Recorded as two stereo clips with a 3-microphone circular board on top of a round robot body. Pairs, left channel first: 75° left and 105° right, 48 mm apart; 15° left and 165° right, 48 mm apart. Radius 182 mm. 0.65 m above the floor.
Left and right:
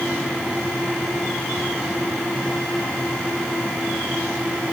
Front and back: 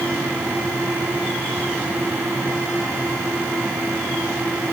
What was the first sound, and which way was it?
Only background noise.